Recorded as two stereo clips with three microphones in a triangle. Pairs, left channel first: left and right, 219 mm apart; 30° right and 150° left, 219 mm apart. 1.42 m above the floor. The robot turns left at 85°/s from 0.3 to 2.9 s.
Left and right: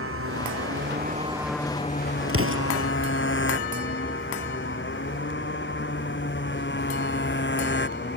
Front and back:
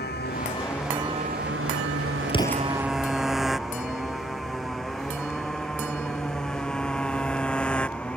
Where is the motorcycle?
75° right; by 8.2 s 55° left.